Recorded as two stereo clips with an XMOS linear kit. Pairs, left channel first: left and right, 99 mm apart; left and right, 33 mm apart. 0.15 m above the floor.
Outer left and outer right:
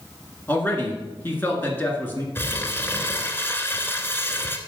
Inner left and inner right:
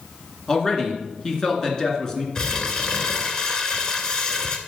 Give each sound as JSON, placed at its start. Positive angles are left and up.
{"t": 0.5, "sound": "a man speaking", "side_deg": 20, "distance_m": 1.9}
{"t": 2.4, "sound": "crumpling", "side_deg": 25, "distance_m": 1.0}